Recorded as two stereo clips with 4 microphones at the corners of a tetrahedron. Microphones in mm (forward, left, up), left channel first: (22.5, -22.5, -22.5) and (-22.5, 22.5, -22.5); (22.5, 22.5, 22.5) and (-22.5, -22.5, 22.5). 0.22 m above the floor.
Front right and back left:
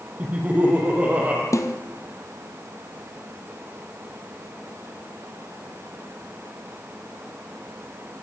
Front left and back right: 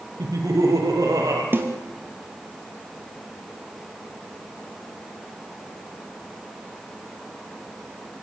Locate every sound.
0.2 s laughter: 155° right, 6 m; by 1.4 s 160° right, 6.5 m
1.5 s a snare drum: 80° right, 2.5 m